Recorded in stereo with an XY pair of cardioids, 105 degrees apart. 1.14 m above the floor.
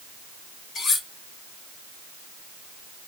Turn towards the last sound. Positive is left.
turn(degrees=70)